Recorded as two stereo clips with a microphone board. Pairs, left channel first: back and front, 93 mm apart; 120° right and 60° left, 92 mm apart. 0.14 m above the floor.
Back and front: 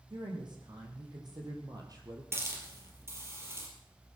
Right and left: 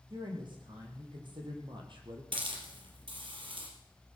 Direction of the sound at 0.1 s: 35° left.